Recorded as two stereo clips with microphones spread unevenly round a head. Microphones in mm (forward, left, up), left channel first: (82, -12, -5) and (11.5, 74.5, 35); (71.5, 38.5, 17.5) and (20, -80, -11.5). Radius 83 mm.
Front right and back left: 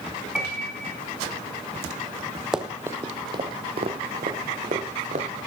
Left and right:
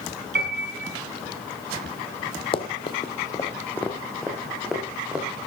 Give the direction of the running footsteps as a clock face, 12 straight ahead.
10 o'clock.